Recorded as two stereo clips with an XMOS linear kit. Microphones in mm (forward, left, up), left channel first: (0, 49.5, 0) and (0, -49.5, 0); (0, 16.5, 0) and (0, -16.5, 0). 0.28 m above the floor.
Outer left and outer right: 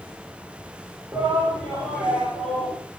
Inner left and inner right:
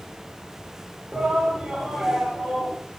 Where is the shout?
10° right (ahead or behind), 5.5 m; by 2.8 s 15° left (ahead or behind), 4.5 m.